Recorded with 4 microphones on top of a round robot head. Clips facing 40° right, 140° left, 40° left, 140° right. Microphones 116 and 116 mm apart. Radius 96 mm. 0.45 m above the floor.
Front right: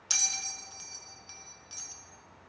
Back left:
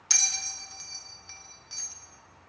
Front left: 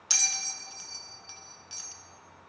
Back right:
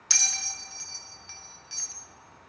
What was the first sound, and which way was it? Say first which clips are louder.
A bell: back left 1 dB, back right 1 dB; 5° left.